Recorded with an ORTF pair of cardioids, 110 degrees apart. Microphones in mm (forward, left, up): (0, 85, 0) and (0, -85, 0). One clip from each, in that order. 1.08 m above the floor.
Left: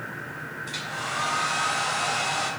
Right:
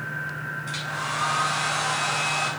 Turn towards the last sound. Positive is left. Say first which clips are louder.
# right 1 dB
turn(degrees=5)